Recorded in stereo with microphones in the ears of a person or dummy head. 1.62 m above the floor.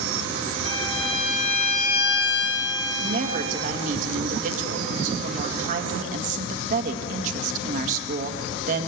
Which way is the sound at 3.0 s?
55° right (ahead or behind).